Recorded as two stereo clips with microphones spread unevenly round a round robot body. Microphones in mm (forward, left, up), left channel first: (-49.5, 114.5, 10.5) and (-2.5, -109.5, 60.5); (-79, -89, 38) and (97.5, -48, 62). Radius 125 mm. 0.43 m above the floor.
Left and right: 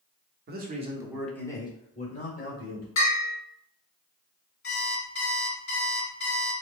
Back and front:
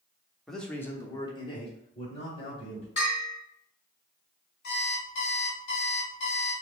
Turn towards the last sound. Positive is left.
turn(degrees=145)